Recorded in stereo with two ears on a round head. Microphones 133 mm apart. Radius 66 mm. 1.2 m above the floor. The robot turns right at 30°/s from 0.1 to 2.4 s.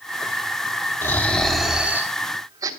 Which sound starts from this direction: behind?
Snoring, at 1.0 s.